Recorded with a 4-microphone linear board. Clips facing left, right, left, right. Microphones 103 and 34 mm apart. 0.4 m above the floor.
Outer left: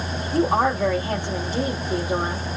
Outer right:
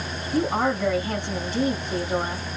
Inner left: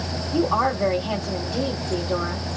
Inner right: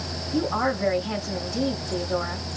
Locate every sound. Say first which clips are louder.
0.3 s a woman speaking: outer left 3 dB, inner left 3 dB; 50° left (ahead or behind), 2.5 m